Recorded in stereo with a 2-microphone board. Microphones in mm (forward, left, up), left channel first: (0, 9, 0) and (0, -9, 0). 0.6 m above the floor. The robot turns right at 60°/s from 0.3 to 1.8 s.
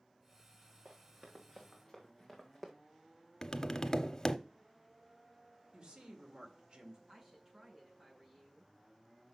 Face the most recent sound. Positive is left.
turn(degrees=-35)  # may be behind; listen again after turning